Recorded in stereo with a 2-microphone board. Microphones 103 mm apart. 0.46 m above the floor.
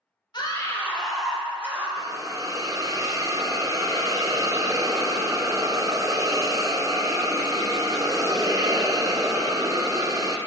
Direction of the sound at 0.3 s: 45° left (ahead or behind).